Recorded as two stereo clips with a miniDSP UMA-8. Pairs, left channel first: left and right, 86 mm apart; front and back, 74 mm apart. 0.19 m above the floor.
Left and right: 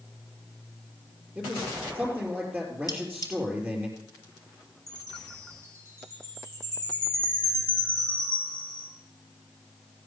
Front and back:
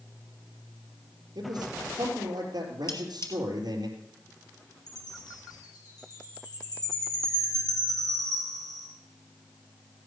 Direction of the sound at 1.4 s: 160° right.